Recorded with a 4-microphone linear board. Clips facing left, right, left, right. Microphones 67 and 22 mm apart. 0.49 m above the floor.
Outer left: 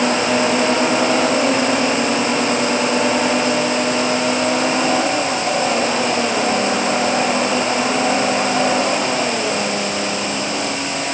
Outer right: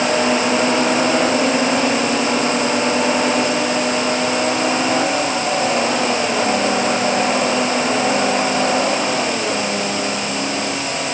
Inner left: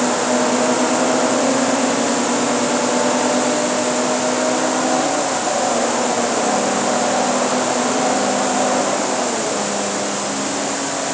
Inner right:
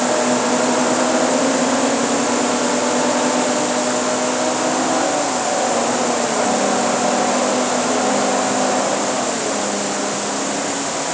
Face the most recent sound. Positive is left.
No sound to turn to.